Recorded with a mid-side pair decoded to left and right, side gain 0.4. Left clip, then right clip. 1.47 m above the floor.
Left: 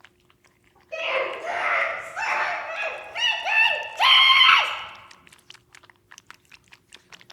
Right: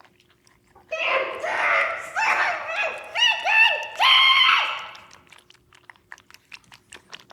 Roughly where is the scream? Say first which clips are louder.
Right 2 dB; ahead right.